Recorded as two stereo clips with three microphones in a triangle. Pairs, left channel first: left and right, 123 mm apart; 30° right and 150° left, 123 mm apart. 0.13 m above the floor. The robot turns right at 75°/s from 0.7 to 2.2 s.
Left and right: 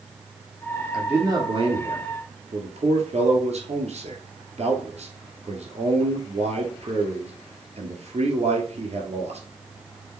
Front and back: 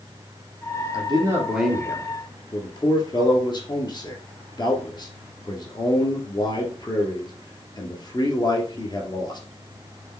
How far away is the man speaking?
About 2 m.